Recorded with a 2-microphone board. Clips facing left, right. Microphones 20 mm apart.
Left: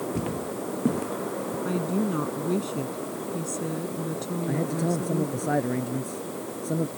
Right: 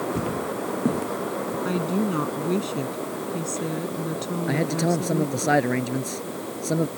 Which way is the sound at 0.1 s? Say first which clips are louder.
Right 3 dB; centre (ahead or behind).